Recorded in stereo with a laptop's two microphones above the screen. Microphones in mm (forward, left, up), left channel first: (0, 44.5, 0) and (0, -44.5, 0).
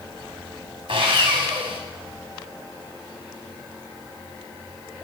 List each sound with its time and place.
0.9 s sawing: 70° right (ahead or behind), 2.5 m